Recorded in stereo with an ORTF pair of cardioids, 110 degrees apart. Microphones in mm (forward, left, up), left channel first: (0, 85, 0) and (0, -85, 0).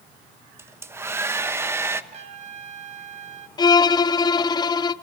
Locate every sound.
0.6 s a hair dryer: 15° right, 1.1 m
2.1 s a trumpet: 40° right, 1.7 m
3.6 s a violin: 25° left, 0.7 m